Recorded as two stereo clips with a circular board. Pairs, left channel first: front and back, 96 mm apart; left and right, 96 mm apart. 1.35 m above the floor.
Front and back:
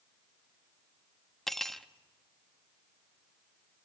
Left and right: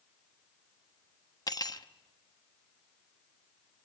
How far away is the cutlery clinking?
About 0.9 m.